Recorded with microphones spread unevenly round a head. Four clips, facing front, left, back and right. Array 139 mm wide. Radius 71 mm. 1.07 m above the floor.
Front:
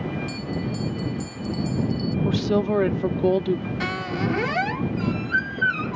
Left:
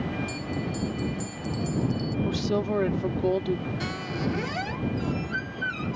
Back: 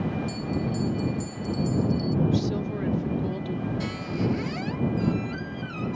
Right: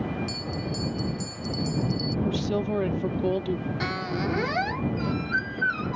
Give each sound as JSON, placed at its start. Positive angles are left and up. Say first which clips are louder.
{"t": 0.3, "sound": "a bell", "louder": "left 1 dB, even", "azimuth_deg": -35}
{"t": 2.2, "sound": "a woman speaking", "louder": "left 1 dB, front 5 dB", "azimuth_deg": 5}
{"t": 3.8, "sound": "a squeak", "louder": "right 2 dB, front 2 dB", "azimuth_deg": -25}